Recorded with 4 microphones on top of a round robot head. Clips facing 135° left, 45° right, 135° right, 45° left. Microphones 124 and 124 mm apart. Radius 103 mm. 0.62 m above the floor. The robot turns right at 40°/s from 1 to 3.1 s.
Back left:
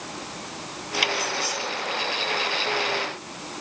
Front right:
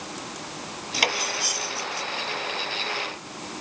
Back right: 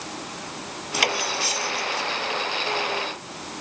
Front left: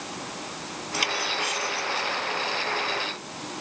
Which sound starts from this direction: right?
Cutlery clinking, at 0.9 s.